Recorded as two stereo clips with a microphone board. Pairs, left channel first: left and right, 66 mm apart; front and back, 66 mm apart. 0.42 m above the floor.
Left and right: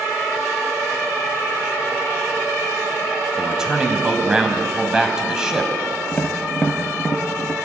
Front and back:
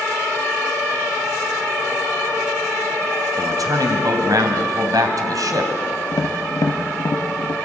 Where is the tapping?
15° left, 2.5 m.